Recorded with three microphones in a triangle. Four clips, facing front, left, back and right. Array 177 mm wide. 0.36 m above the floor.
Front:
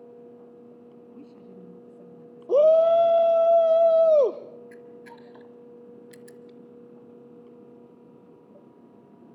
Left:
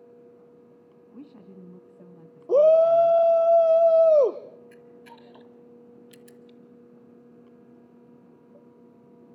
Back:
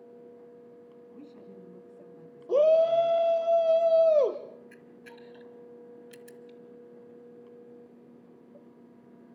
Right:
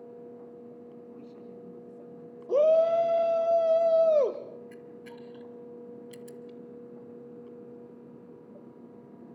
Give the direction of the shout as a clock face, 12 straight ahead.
10 o'clock.